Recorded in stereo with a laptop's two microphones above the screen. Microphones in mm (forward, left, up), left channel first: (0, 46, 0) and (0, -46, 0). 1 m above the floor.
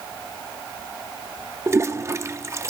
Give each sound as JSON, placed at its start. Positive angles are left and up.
{"t": 1.7, "sound": "a toilet flushing", "side_deg": -30, "distance_m": 0.5}